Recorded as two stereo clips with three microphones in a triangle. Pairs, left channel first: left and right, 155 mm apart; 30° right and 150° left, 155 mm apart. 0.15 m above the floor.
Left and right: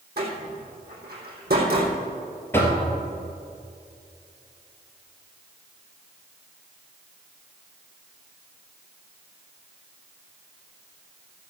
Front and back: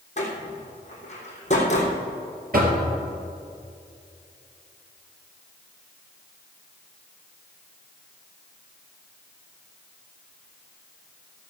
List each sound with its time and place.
0.2 s a door slam: 75° right, 4 m
2.5 s knocking: 165° left, 2.5 m